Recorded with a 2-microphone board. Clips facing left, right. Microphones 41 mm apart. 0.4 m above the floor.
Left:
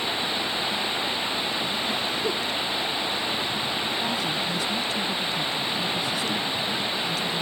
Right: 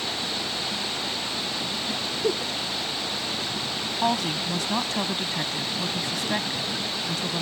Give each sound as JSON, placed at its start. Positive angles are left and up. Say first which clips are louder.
{"t": 0.0, "sound": "running water", "louder": "left 3 dB", "side_deg": 25}
{"t": 2.2, "sound": "a giggle", "louder": "right 1 dB", "side_deg": -30}
{"t": 4.0, "sound": "a woman speaking", "louder": "right 2 dB", "side_deg": -65}